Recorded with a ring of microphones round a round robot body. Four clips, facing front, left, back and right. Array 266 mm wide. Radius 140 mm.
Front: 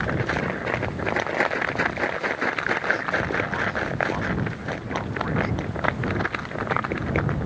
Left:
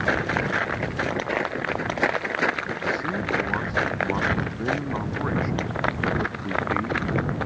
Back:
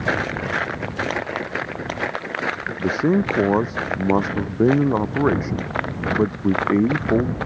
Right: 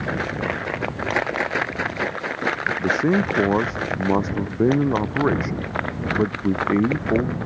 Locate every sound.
2.8 s a man speaking: 145° right; by 7.4 s 150° right